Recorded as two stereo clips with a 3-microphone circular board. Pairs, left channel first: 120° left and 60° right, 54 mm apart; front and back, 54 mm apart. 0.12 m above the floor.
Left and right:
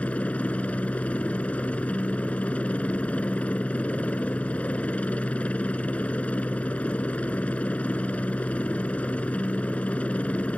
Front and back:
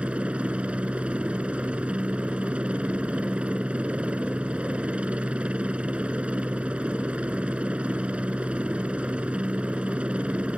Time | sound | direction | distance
0.0 | a helicopter | 145° left | ?